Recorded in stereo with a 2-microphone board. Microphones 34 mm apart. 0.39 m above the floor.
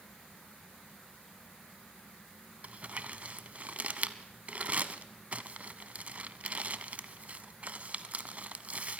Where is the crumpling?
40° right (ahead or behind), 0.5 m.